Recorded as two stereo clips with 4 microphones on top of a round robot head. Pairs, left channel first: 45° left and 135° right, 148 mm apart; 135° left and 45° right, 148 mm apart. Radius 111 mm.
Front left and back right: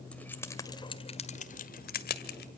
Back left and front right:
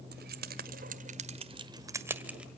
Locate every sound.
0.1 s keys jangling: 40° right, 2 m; by 2.5 s 40° left, 2 m